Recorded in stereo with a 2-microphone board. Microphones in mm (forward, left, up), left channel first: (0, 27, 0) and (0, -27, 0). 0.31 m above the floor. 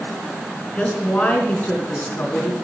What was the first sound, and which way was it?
A woman speaking, 25° left (ahead or behind).